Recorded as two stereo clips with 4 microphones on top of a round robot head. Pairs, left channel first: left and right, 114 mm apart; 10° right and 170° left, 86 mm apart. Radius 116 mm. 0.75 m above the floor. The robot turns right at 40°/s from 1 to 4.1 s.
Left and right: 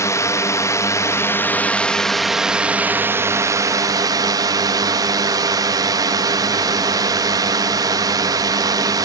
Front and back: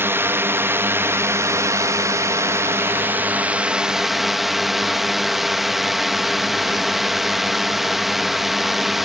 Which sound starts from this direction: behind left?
A drone, at 0.0 s.